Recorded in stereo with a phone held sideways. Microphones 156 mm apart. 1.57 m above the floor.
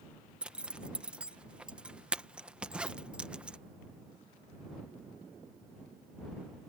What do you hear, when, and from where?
0.4 s a zipper: 5° right (ahead or behind)